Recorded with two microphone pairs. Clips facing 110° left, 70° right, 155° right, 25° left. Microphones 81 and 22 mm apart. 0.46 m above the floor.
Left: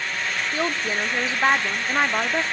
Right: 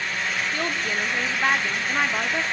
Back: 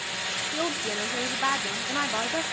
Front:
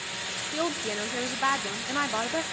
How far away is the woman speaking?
About 0.7 m.